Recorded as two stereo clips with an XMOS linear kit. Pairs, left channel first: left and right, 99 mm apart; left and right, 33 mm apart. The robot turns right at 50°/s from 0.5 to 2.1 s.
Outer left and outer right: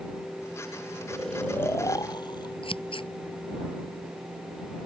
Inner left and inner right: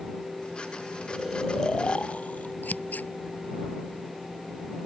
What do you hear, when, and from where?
1.1 s snoring: 5° right; by 2.5 s 45° left
2.6 s scissors: 65° left (ahead or behind)